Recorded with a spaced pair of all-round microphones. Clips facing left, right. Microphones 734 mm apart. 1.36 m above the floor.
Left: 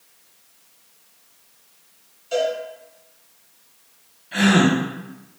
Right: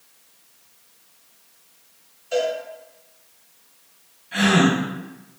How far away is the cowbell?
About 1.4 m.